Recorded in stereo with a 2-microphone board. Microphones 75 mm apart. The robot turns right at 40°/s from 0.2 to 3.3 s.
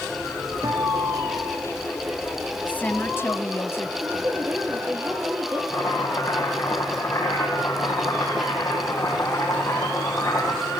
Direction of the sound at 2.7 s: 20° left (ahead or behind).